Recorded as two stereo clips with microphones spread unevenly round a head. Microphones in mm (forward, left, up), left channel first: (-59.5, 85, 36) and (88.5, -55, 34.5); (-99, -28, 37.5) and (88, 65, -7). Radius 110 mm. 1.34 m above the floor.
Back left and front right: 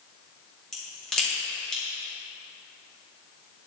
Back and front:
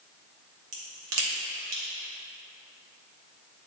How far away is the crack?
About 2.5 m.